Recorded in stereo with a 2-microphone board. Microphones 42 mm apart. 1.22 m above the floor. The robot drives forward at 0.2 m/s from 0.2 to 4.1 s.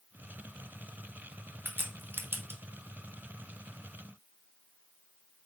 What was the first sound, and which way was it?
A crack, 50° right (ahead or behind).